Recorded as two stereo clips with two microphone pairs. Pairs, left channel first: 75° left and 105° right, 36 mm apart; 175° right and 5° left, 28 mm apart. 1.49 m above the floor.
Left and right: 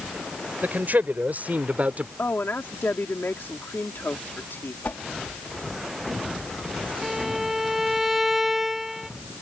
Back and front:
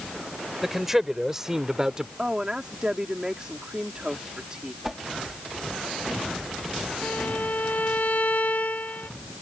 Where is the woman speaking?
70° left.